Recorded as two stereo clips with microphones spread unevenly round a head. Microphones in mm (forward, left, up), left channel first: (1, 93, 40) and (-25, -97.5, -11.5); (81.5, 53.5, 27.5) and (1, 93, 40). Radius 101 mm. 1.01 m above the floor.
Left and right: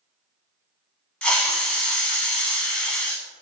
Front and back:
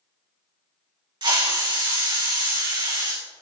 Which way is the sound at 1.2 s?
155° left.